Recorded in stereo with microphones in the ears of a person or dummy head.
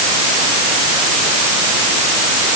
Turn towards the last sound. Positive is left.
No sound to turn to.